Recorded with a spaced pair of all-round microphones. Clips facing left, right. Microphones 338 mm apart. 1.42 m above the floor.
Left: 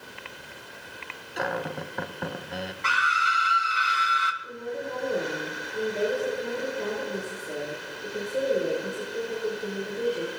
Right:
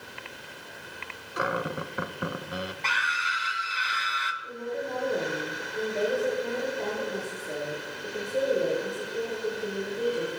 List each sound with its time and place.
1.4 s a cupboard door: 10° right (ahead or behind), 0.7 m
2.8 s a scream: 15° left (ahead or behind), 1.7 m
4.4 s a woman speaking: 15° left (ahead or behind), 5 m